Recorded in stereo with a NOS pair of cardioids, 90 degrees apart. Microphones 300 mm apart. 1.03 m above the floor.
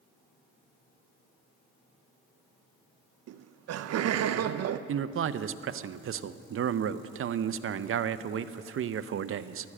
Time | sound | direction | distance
3.3 | laughter | 55° right | 0.5 m
4.9 | a man speaking | 45° right | 0.6 m